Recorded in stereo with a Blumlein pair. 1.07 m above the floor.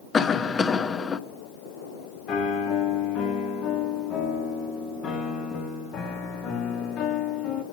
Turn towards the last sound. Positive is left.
turn(degrees=30)